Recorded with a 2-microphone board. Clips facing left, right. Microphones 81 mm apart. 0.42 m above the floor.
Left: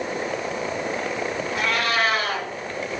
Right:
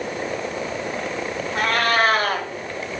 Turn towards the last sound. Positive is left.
turn(degrees=-45)  # may be behind; listen again after turning